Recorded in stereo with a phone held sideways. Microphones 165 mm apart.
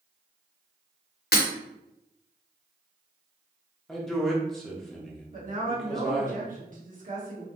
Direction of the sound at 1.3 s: 70° left (ahead or behind).